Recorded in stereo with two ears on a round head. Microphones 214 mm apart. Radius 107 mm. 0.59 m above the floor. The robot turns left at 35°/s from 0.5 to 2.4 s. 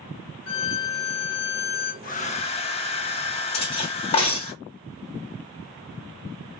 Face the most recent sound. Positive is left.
turn(degrees=25)  # may be behind; listen again after turning